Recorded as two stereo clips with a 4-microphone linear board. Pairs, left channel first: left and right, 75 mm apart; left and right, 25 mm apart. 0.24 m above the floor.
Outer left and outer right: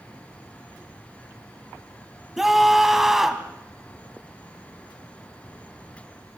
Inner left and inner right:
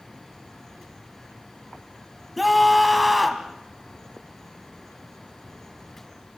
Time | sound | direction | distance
2.4 | a scream | 5° right (ahead or behind) | 2 m